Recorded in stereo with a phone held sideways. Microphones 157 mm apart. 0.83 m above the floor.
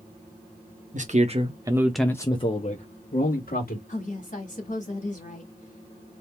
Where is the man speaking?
55° right (ahead or behind), 1.2 m; by 3.8 s 70° left (ahead or behind), 1.8 m.